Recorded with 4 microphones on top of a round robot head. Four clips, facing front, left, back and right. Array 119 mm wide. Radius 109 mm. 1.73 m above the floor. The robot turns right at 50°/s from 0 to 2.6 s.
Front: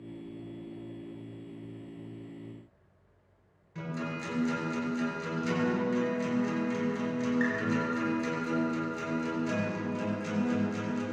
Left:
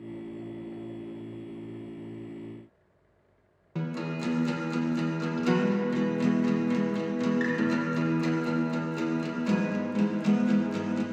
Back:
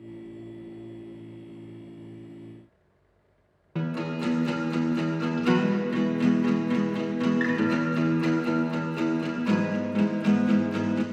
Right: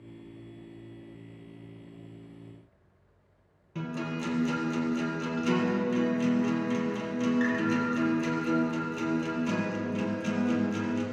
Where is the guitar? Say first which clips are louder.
Left 1 dB, back 7 dB; 155° left, 2.5 m.